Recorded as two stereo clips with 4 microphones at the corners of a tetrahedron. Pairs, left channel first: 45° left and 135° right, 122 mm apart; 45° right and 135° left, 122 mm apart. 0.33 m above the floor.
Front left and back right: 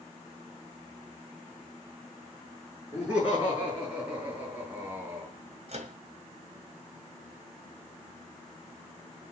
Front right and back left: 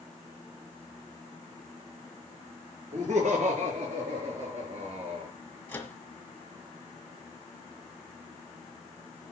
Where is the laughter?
145° left, 5.5 m; by 5.3 s 155° left, 3 m.